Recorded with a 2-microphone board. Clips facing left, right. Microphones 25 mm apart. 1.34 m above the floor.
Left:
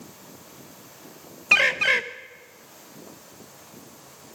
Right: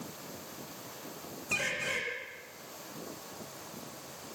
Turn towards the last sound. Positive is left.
turn(degrees=65)  # may be behind; listen again after turning